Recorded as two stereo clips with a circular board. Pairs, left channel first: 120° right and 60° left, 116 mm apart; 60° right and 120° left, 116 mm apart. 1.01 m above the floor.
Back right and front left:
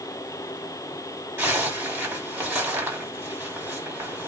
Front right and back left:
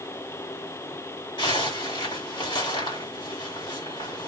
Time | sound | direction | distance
1.4 | a zipper | 10° right | 2.5 m